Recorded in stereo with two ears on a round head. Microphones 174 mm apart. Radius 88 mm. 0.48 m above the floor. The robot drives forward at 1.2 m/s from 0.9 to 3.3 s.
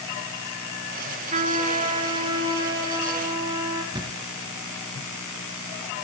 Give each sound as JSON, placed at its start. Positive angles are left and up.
{"t": 1.3, "sound": "a trumpet", "side_deg": -40, "distance_m": 2.5}
{"t": 3.9, "sound": "a thud", "side_deg": -25, "distance_m": 2.5}